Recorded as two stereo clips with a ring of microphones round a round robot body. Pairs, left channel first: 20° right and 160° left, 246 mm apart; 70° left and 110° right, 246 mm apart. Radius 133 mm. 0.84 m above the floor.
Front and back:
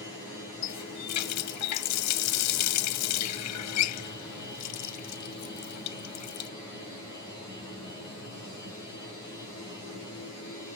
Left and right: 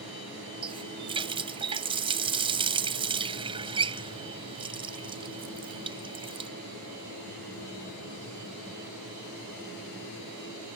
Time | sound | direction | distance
0.6 | a running tap | 40° right | ?